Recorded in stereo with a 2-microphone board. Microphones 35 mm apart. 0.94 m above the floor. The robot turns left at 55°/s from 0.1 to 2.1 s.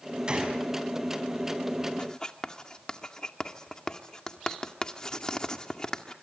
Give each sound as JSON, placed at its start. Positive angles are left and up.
{"t": 0.3, "sound": "a gunshot", "side_deg": -25, "distance_m": 6.0}
{"t": 2.0, "sound": "writing", "side_deg": 30, "distance_m": 1.8}